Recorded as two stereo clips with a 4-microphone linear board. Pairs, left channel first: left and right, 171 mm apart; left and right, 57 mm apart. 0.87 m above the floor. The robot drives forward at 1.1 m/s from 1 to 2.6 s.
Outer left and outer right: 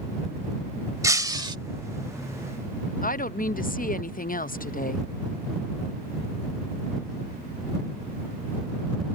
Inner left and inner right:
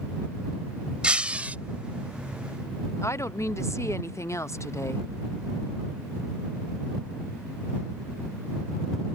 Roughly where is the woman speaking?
Left.